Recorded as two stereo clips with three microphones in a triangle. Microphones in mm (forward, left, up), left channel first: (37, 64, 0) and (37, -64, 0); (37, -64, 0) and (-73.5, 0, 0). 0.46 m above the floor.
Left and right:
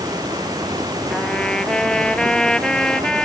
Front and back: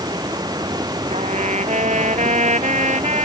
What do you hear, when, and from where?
0.0 s running water: 150° right
1.1 s a trumpet: 175° left